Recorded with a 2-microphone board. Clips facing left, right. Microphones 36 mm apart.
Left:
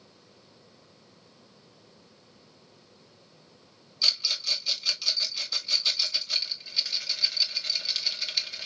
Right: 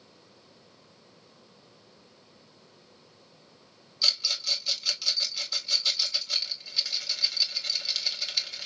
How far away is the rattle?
About 1.7 m.